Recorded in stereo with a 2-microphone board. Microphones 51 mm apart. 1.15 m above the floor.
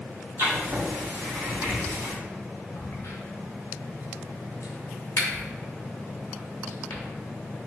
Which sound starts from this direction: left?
A crack, at 2.8 s.